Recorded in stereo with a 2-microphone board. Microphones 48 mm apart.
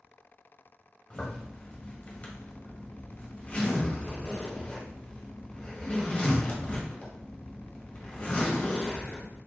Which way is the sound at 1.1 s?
30° left (ahead or behind).